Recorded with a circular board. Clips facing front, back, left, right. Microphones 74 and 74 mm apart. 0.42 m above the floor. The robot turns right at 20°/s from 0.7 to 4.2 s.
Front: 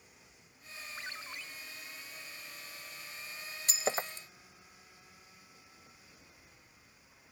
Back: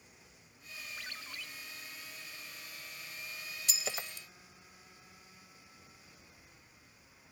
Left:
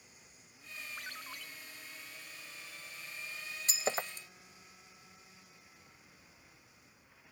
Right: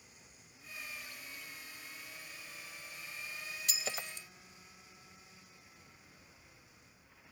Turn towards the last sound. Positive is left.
turn(degrees=50)